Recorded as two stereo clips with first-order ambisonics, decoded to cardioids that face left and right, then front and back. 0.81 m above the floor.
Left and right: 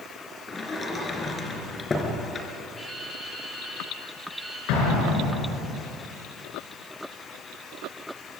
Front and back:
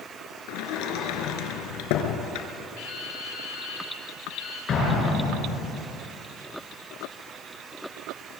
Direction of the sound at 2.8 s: 10° left.